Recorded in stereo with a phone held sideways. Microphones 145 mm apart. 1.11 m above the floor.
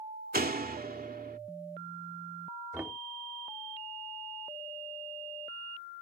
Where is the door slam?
85° right.